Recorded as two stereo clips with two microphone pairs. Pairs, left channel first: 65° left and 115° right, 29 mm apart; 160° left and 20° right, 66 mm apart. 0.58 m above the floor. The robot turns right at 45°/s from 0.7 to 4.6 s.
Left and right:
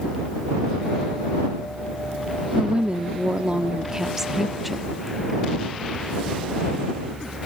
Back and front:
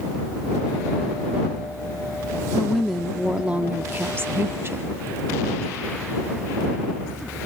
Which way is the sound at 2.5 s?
125° right.